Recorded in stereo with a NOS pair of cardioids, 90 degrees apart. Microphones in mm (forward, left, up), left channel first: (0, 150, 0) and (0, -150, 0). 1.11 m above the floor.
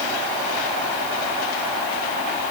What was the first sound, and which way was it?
Only background noise.